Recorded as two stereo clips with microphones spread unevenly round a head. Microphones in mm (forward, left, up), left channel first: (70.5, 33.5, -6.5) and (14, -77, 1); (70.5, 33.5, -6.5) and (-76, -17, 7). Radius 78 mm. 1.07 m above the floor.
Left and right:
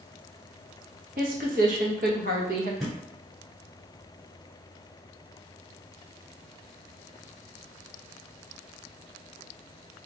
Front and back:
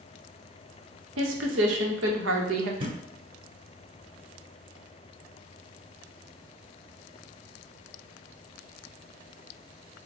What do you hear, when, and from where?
1.2 s a woman speaking: 155° right, 0.8 m
2.8 s a thud: 155° left, 1.5 m